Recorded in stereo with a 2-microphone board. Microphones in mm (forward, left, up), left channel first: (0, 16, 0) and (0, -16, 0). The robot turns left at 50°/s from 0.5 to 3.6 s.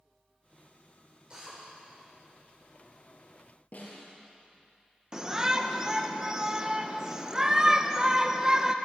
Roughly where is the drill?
Right.